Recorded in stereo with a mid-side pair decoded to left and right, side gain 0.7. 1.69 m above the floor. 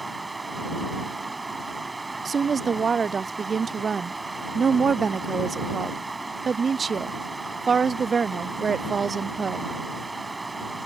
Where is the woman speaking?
25° right.